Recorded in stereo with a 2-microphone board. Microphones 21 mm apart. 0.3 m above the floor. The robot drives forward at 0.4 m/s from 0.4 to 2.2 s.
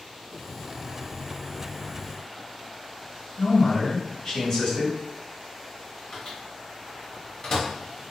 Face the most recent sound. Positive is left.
turn(degrees=30)  # may be behind; listen again after turning